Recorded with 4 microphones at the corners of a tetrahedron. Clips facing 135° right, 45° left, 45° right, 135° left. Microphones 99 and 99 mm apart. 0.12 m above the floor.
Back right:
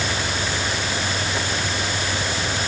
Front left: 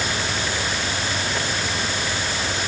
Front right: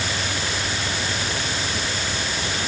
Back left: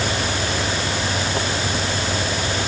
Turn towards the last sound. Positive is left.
No sound to turn to.